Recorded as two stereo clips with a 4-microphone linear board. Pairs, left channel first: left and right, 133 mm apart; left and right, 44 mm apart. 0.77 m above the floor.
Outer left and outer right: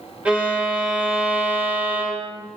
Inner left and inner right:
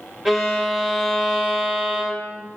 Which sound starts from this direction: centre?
A violin, at 0.2 s.